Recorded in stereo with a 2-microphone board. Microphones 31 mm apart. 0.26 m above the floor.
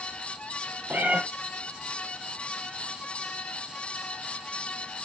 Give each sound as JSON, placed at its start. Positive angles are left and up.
{"t": 0.9, "sound": "a cat meowing", "side_deg": -70, "distance_m": 0.8}